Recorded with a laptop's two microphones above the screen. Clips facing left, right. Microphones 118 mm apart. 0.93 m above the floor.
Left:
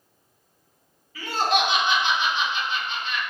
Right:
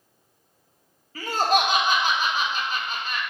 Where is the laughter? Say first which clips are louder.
Right 1 dB; 45° right (ahead or behind), 0.8 m.